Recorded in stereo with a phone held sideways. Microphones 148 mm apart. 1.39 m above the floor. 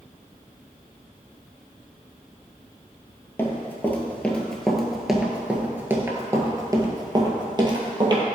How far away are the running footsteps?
About 1.8 m.